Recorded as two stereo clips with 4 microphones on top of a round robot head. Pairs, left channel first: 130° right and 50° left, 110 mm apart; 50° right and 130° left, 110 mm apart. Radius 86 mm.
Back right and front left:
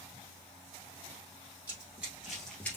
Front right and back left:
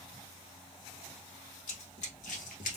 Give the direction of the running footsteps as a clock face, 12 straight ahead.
1 o'clock.